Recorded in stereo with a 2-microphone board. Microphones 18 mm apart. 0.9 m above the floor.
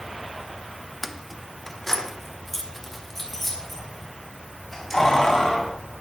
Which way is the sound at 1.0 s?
5° left (ahead or behind).